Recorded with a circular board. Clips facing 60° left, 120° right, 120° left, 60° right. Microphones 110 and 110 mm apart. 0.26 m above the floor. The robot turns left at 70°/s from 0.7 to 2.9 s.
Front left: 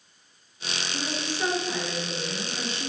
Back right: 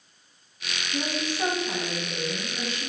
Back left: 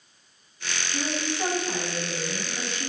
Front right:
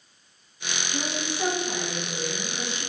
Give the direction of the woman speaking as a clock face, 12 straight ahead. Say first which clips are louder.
Back right 4 dB, back left 2 dB; 4 o'clock.